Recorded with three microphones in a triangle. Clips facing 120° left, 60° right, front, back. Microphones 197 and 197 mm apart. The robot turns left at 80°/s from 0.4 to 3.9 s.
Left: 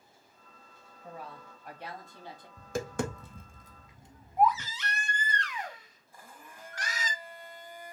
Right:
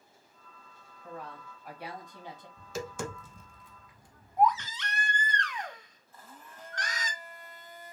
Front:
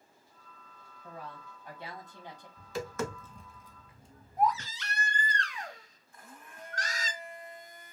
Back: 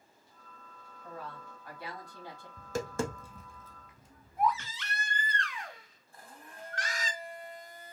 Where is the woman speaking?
70° left, 1.4 m; by 2.5 s 45° right, 1.4 m.